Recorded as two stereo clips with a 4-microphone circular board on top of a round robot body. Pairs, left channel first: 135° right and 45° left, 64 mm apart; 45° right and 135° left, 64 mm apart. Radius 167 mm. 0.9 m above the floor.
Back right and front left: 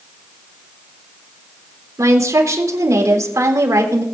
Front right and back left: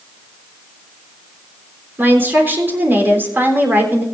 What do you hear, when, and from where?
2.0 s a woman speaking: 80° left, 3.5 m